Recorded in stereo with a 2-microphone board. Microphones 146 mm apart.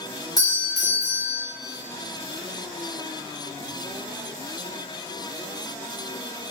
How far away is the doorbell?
About 1.3 m.